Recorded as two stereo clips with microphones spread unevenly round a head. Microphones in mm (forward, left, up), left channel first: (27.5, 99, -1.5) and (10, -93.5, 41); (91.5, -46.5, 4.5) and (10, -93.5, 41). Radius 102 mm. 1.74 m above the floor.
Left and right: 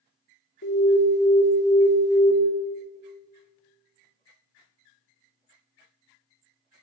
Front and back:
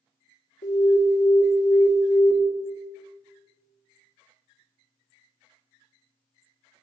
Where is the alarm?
45° left, 1.4 m.